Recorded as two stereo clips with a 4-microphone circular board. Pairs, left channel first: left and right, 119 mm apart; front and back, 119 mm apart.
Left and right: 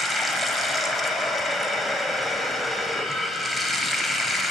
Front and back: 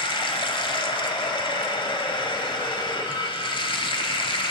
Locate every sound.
0.0 s running water: straight ahead, 0.7 m